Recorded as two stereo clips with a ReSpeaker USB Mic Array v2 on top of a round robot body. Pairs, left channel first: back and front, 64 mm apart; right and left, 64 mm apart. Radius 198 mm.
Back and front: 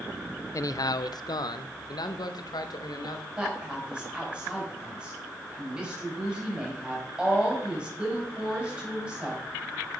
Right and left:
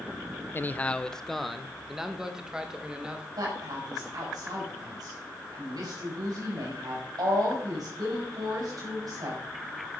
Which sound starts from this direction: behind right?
A man speaking, at 0.5 s.